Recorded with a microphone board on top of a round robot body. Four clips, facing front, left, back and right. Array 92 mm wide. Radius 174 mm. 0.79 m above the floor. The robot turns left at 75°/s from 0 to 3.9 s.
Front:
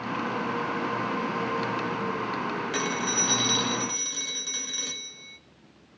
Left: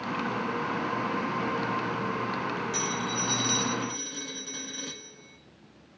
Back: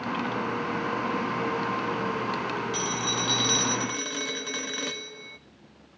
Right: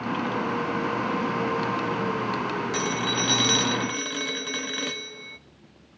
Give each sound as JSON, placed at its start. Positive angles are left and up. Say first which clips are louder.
{"t": 2.7, "sound": "a phone ringing", "louder": "right 4 dB, front 1 dB", "azimuth_deg": -35, "distance_m": 0.9}